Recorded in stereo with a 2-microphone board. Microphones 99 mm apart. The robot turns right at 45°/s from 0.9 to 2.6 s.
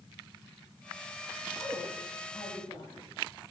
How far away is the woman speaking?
About 7 m.